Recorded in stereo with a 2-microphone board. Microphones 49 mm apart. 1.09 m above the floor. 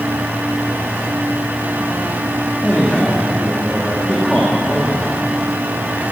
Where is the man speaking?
10° left (ahead or behind), 2.5 m.